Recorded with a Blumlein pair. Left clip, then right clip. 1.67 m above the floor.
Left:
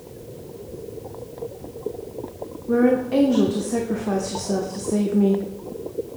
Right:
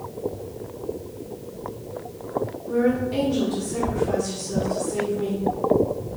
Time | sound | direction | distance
2.7 | a woman speaking | 50° left | 0.5 m